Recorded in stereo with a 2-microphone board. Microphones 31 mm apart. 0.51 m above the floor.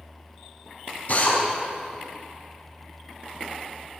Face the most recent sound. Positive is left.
turn(degrees=60)  # may be behind; listen again after turning